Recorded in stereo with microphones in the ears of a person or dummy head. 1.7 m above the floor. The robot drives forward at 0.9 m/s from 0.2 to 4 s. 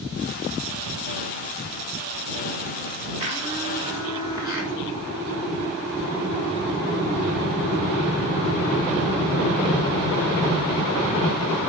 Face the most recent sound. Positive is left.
turn(degrees=-20)  # may be behind; listen again after turning